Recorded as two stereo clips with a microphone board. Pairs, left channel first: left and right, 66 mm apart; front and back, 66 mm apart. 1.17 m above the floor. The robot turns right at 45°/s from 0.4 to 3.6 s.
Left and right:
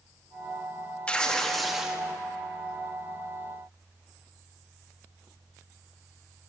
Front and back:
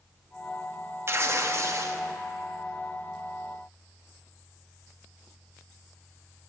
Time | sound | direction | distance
1.1 | tearing paper | 155° left | 0.7 m